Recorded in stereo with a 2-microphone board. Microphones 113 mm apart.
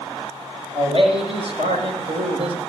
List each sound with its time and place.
0.8 s a man speaking: 55° right (ahead or behind), 8 m; by 2.6 s 70° right (ahead or behind), 6.5 m